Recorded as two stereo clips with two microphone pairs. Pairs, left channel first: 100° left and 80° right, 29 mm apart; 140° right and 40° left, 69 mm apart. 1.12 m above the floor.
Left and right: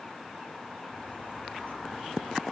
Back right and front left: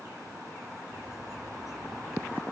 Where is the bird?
130° left, 3.5 m.